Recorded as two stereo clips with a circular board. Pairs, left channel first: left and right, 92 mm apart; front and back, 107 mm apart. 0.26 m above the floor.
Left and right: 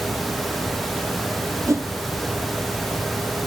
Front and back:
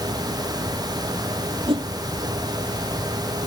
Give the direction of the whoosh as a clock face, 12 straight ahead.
5 o'clock.